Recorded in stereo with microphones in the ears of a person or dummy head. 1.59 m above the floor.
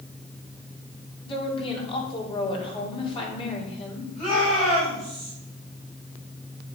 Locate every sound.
1.2 s a woman speaking: 35° left (ahead or behind), 4 m
4.2 s a shout: 35° left (ahead or behind), 6.5 m